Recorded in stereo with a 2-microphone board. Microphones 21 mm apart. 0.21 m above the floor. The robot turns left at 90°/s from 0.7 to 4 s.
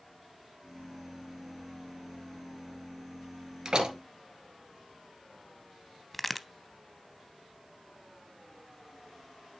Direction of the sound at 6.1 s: Centre (ahead or behind).